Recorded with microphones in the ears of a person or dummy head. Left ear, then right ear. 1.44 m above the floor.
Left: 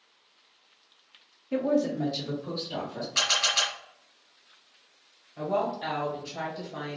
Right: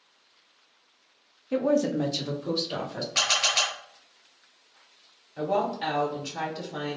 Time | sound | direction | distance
1.5 | a woman speaking | 20° right (ahead or behind) | 0.7 m
3.1 | a camera shutter | 20° right (ahead or behind) | 1.3 m
5.4 | a woman speaking | 80° right | 2 m